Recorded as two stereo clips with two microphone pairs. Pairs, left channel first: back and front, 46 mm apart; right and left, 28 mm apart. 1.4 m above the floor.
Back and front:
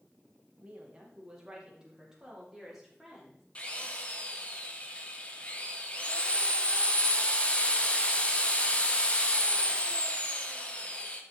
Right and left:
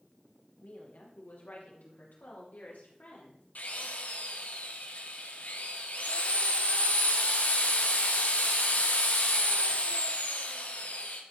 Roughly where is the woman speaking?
Right.